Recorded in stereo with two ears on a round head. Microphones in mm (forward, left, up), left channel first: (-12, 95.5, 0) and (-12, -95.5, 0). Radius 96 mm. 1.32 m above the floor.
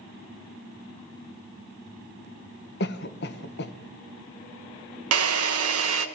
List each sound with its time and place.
2.8 s a cough: 50° left (ahead or behind), 1.1 m
5.1 s a drill: 75° right (ahead or behind), 1.5 m